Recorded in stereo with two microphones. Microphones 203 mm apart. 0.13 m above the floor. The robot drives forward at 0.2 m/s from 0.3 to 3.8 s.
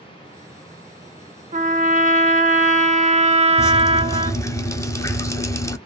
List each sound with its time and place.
1.5 s a trumpet: 35° right (ahead or behind), 0.6 m; by 4.4 s 30° right (ahead or behind), 0.7 m
3.6 s dripping: 15° left (ahead or behind), 0.8 m